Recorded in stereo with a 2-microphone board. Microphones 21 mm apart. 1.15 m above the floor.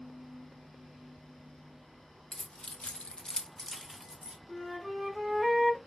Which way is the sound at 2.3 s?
40° left (ahead or behind).